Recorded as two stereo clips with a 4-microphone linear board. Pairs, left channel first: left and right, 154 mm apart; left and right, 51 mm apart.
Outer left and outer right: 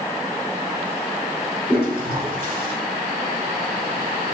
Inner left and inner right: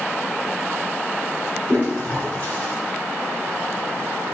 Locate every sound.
1.7 s a toilet flushing: 40° left (ahead or behind), 1.9 m